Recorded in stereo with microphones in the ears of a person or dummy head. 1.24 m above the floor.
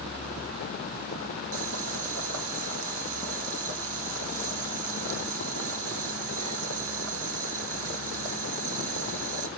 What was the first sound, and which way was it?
Boiling, 65° right (ahead or behind).